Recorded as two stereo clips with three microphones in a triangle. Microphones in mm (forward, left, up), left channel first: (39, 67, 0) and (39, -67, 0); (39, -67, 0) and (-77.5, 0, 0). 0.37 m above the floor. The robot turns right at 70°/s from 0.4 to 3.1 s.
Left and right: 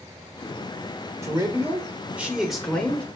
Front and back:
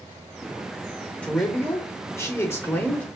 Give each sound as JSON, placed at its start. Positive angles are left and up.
{"t": 1.2, "sound": "a man speaking", "azimuth_deg": -95, "distance_m": 0.8}